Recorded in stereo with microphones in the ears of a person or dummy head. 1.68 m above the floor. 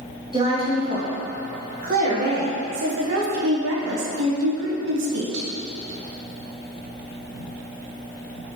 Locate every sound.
0.3 s a woman speaking: 20° right (ahead or behind), 2 m; by 5.5 s 70° right (ahead or behind), 1.6 m